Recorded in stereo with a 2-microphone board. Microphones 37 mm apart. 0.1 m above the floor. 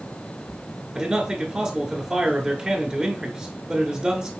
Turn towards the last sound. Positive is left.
turn(degrees=-25)  # may be behind; listen again after turning